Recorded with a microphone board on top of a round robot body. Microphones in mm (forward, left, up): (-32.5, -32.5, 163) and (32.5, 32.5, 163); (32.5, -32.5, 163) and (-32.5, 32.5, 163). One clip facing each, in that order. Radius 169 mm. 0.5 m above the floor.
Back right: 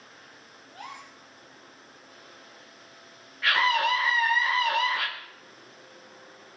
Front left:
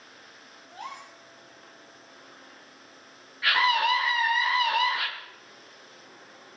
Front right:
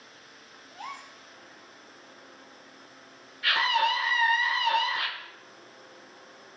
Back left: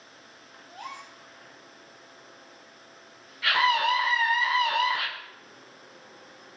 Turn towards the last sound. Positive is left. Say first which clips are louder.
# even, back left 2 dB
turn(degrees=130)